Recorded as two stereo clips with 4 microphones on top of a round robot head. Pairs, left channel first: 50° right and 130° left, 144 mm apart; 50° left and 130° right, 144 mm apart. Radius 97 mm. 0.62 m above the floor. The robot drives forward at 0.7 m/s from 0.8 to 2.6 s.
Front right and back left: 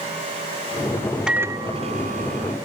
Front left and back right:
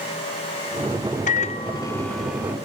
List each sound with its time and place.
1.3 s a microwave: 45° left, 0.5 m; by 2.5 s 155° left, 0.8 m